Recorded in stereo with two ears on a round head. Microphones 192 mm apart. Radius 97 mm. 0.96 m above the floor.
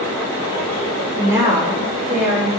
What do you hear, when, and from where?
1.2 s a woman speaking: 15° right (ahead or behind), 2.5 m